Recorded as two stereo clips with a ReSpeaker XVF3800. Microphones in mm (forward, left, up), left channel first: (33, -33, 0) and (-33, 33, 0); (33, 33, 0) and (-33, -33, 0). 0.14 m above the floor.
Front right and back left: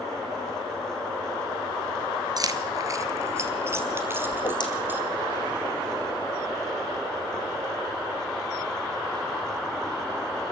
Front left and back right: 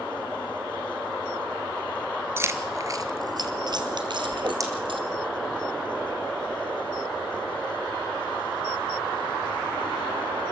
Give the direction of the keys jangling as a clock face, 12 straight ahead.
6 o'clock.